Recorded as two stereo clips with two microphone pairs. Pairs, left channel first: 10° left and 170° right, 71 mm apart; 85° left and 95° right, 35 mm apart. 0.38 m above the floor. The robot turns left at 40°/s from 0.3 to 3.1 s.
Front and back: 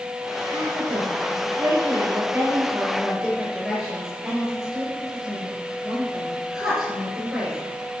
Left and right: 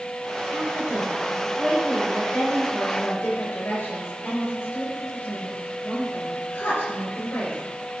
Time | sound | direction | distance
0.5 | a woman speaking | 150° right | 7 m